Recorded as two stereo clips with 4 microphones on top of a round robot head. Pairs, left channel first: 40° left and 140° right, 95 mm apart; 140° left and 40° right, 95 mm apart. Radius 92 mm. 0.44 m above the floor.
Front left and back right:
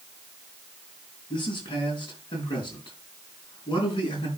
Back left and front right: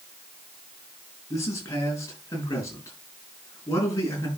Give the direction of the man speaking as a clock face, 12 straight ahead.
9 o'clock.